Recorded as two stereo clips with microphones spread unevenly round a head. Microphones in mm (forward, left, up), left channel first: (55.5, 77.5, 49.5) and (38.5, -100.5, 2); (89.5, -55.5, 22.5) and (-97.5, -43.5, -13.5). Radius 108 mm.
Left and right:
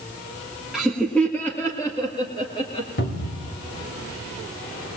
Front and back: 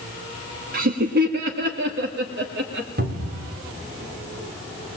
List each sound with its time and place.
0.7 s laughter: 175° right, 1.5 m; by 2.9 s 150° left, 2 m
3.0 s a cupboard door: 130° left, 3 m